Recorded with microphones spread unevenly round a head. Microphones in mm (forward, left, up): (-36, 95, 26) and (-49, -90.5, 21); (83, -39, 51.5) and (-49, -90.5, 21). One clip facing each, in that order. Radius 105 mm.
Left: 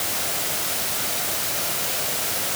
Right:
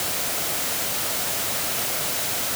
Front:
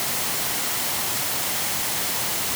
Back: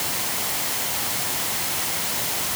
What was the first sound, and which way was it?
Only background noise.